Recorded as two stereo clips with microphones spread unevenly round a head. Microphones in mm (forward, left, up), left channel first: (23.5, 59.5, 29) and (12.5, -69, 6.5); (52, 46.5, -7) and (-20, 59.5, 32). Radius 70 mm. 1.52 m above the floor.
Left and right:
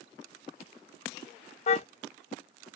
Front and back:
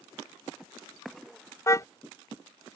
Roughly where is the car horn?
Ahead left.